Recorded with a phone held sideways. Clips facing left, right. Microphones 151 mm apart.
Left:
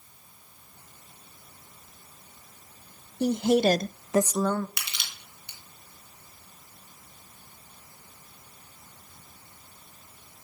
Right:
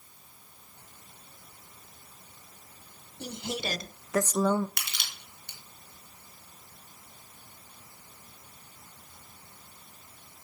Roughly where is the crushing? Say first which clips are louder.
Even; right.